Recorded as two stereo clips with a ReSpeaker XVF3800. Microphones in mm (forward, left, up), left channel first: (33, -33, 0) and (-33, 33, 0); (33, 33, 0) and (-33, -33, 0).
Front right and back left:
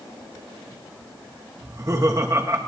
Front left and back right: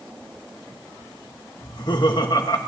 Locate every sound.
1.6 s laughter: 80° left, 1.9 m